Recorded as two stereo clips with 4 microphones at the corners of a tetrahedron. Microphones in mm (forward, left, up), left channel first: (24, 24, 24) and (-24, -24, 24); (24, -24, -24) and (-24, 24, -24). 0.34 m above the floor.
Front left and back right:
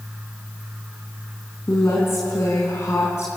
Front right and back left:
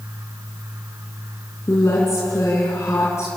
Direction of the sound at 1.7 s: Straight ahead.